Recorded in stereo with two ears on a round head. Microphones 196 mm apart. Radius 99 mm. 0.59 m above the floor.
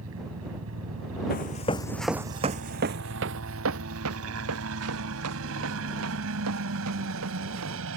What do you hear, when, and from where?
0.0 s a helicopter: 70° right (ahead or behind)
1.3 s running footsteps: 40° left (ahead or behind); by 7.8 s 85° right